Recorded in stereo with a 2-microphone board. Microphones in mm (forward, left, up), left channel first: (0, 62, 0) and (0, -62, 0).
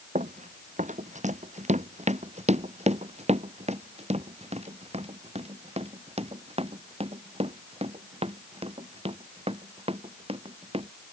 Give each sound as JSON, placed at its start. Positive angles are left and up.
{"t": 0.1, "sound": "running footsteps", "side_deg": -90}